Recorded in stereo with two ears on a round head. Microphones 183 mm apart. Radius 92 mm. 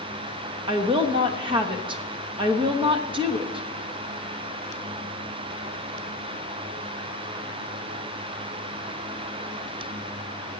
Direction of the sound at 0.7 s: 25° right (ahead or behind).